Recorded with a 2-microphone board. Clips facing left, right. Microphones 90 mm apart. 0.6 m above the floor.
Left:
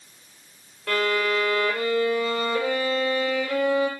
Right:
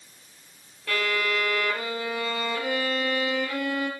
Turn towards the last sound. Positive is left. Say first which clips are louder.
# left 4 dB
turn(degrees=65)  # may be behind; listen again after turning